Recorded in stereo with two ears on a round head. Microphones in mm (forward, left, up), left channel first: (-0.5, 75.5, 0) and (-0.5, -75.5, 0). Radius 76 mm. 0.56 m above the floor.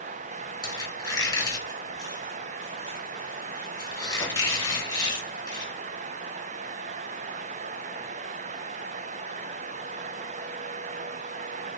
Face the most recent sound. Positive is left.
turn(degrees=25)  # may be behind; listen again after turning